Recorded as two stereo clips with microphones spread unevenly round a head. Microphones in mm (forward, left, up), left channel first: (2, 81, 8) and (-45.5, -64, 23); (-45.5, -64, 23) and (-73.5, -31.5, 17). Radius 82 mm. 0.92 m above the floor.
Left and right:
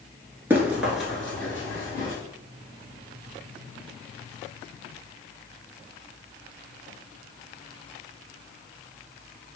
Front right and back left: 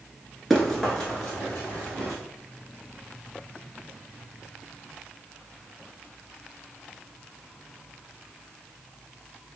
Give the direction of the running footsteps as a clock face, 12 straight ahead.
3 o'clock.